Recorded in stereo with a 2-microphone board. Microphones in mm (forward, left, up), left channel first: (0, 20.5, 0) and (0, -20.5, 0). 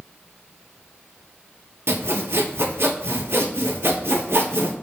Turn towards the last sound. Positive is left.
turn(degrees=-80)